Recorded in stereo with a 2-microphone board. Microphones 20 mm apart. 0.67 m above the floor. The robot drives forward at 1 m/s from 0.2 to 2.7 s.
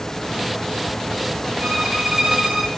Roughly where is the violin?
Right.